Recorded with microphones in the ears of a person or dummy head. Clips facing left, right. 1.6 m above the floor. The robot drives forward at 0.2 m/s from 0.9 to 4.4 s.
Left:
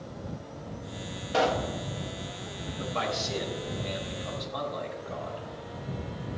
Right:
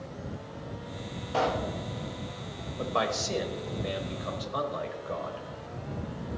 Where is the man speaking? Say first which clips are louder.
Right 2 dB; 70° right (ahead or behind), 1.4 m; by 5.5 s 60° right (ahead or behind), 1.6 m.